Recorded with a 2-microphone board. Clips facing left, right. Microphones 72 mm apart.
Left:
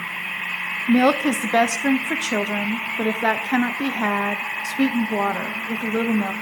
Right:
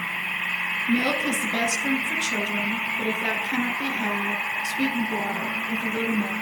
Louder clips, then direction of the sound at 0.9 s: Left 8 dB; 80° left.